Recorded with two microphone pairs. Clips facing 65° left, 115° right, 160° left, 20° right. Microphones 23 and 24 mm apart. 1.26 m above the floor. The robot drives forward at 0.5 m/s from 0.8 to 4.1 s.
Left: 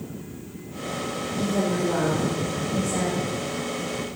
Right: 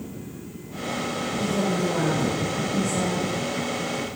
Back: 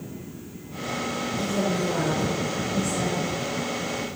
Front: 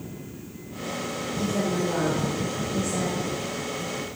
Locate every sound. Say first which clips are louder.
1.4 s a woman speaking: left 1 dB, front 1 dB; 35° left, 3 m; by 4.1 s 55° left, 2 m